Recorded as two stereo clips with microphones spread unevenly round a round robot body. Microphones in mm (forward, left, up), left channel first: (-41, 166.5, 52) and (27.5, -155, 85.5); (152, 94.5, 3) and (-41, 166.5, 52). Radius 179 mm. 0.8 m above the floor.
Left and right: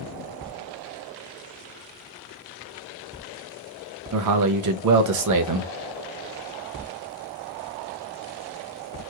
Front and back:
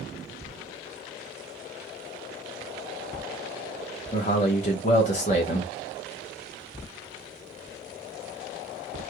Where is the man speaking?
55° right, 0.5 m.